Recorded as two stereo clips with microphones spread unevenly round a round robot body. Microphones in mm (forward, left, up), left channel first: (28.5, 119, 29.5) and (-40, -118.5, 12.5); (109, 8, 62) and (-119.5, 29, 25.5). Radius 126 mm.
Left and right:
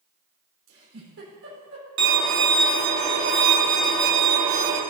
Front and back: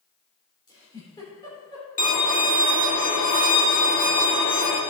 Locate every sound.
0.7 s a giggle: 80° right, 4 m
2.0 s a violin: 65° right, 1.8 m